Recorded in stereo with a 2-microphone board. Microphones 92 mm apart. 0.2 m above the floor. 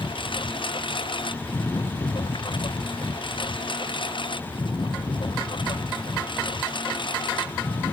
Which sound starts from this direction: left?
A lawn mower, at 0.0 s.